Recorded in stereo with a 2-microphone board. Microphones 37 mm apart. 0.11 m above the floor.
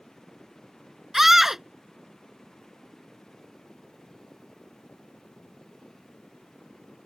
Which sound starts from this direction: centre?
A scream, at 1.1 s.